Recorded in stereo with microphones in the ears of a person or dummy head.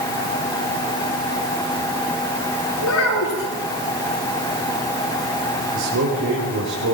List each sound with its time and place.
2.8 s a child speaking: 70° left (ahead or behind), 8.5 m
5.7 s a man speaking: 65° right (ahead or behind), 5 m